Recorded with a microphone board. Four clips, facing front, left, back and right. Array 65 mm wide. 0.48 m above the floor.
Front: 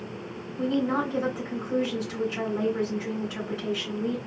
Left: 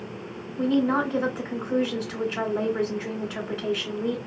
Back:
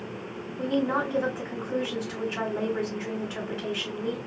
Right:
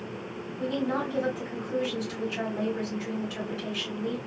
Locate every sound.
0.6 s a woman speaking: 110° left, 1.2 m